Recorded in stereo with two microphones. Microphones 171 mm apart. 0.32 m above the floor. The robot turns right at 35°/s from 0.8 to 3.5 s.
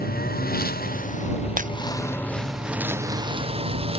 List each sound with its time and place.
0.0 s a lawn mower: 120° left; by 4.0 s 145° right
1.6 s breaking glass: 50° right (ahead or behind); by 1.7 s 45° right (ahead or behind)